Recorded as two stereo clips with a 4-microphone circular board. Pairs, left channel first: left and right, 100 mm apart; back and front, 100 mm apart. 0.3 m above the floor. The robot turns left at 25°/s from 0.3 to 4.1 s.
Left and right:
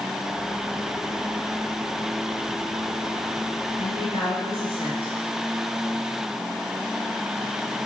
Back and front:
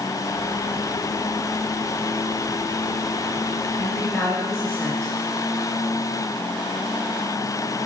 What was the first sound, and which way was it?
A woman speaking, 105° left.